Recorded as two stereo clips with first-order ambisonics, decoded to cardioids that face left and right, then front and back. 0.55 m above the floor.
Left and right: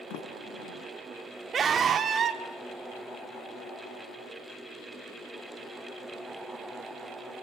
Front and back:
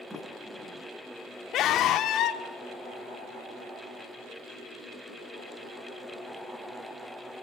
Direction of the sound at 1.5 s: 30° right.